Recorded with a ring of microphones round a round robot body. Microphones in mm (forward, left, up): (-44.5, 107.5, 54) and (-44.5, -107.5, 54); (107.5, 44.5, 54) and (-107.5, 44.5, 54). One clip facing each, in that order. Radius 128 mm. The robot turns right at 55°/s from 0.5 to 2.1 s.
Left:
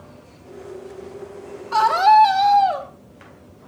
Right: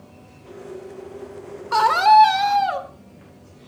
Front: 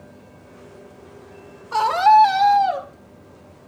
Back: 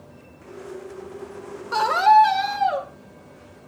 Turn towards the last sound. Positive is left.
turn(degrees=-90)